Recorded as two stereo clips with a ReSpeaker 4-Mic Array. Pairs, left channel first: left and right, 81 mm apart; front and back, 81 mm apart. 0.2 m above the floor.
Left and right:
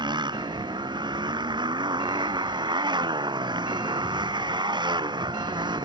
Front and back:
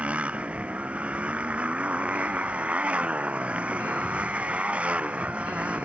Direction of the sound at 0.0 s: 105° right.